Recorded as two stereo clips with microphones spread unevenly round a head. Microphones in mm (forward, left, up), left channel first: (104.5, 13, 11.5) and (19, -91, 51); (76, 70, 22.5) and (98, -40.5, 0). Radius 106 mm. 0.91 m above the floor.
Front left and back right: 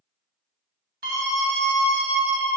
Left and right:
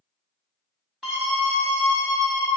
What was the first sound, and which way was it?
A scream, 165° right.